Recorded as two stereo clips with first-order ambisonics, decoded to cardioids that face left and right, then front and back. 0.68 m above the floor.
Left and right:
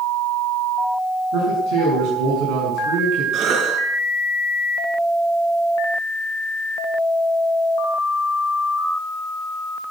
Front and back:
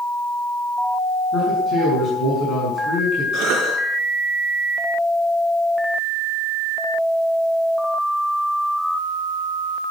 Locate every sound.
1.3 s a man speaking: 60° right, 7 m
3.3 s a cough: 135° right, 6 m